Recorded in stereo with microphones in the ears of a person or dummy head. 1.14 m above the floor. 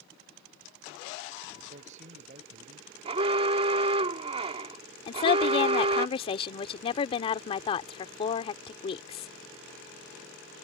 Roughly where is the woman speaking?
Left.